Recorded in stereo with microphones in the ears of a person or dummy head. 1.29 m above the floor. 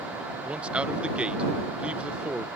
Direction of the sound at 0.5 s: 5° right (ahead or behind).